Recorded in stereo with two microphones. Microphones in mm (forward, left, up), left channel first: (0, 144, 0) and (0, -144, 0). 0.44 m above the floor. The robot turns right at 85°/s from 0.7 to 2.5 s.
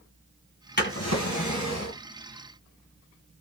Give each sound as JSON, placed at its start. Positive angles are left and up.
{"t": 0.8, "sound": "a drawer", "azimuth_deg": 35, "distance_m": 1.5}